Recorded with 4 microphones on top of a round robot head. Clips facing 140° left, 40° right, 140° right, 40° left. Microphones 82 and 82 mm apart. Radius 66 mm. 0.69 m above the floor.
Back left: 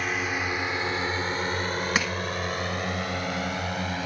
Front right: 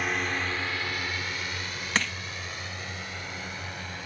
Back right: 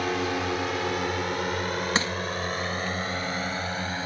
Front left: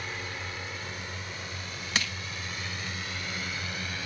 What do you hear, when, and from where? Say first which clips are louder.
0.0 s a drone: back left 1 dB, back right 11 dB; 130° right; by 4.1 s 165° left
1.9 s crushing: front right 1 dB, back right 2 dB; 145° right